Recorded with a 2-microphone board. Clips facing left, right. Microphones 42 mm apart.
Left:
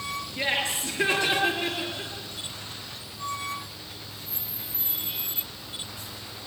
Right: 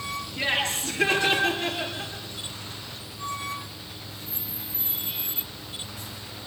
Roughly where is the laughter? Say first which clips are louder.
Right 1 dB; left.